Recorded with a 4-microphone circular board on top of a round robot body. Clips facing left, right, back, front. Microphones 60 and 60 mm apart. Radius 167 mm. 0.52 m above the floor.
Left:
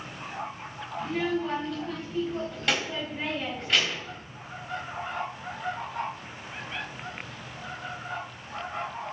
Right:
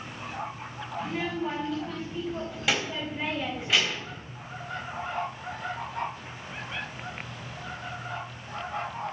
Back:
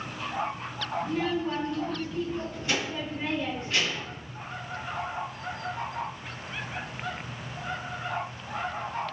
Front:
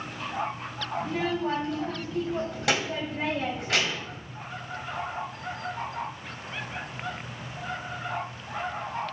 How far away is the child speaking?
About 3.5 m.